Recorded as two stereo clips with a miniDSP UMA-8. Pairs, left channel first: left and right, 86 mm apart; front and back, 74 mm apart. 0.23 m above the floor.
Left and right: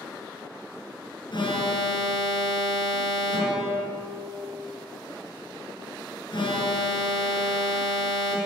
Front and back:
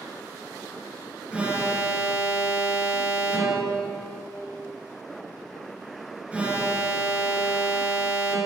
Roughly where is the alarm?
Left.